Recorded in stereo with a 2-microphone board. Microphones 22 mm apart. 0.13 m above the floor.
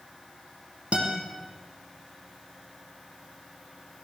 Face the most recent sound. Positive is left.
turn(degrees=-75)  # may be behind; listen again after turning